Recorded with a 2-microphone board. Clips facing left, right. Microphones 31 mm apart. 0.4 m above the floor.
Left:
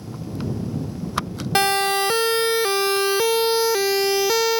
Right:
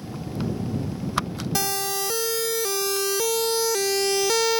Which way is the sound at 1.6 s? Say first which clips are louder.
Left 9 dB; 50° left (ahead or behind).